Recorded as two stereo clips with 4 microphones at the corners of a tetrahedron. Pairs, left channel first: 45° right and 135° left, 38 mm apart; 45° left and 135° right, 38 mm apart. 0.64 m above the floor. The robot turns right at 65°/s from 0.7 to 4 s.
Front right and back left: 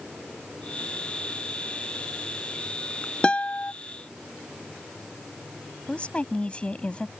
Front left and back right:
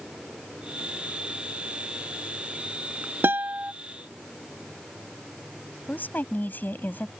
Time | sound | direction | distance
3.2 | a guitar | 110° right | ?
5.9 | a woman speaking | 15° left | ?